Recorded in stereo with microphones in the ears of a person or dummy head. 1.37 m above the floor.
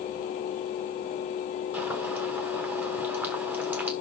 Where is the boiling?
15° right (ahead or behind), 1.1 m.